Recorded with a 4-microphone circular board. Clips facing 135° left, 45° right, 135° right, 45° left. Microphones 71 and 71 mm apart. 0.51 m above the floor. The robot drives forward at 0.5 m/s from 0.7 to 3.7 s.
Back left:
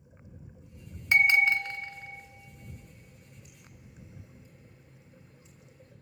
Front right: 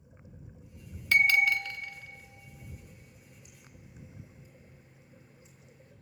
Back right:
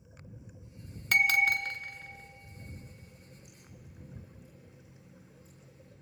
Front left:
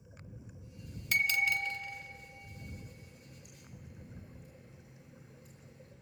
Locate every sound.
1.1 s a bell: 160° right, 0.6 m; by 2.2 s 170° right, 1.1 m
2.8 s a running tap: 35° left, 6.5 m